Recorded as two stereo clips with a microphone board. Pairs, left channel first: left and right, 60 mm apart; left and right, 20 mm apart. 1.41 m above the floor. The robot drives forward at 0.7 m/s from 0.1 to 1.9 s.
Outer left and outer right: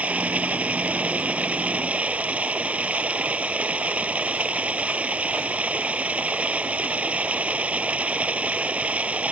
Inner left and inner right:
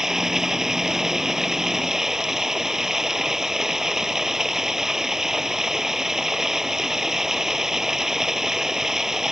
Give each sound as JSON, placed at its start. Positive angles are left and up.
{"t": 0.0, "sound": "running water", "side_deg": -20}